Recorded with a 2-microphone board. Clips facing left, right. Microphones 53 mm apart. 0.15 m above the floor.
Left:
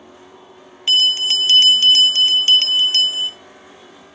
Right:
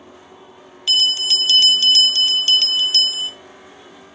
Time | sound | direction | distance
0.9 | a bell | 35° left (ahead or behind) | 0.8 m